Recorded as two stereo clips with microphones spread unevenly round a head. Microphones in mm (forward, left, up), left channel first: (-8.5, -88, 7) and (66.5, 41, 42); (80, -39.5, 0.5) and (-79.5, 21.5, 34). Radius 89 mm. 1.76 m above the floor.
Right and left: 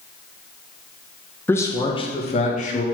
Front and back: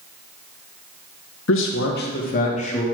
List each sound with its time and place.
1.5 s a man speaking: 35° right, 1.3 m; by 2.8 s 80° right, 2 m